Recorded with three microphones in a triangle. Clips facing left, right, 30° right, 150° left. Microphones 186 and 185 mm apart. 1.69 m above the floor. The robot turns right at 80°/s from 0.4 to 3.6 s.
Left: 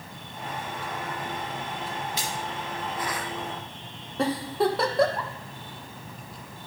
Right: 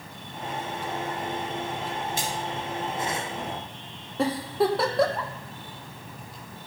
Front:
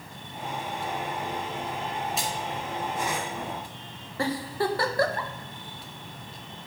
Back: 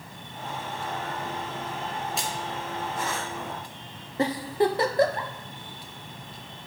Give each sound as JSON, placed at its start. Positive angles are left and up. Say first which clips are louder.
{"t": 2.2, "sound": "a splash", "louder": "right 2 dB, front 1 dB", "azimuth_deg": -120, "distance_m": 1.9}
{"t": 4.2, "sound": "a giggle", "louder": "right 1 dB, back 4 dB", "azimuth_deg": 180, "distance_m": 0.8}